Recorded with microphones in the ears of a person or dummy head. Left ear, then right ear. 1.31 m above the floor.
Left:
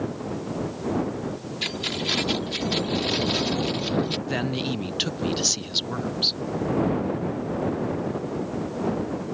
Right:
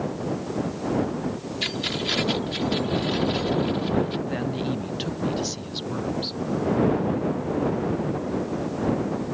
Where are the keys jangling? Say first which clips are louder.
Even; 5° left (ahead or behind); by 4.2 s 40° left (ahead or behind).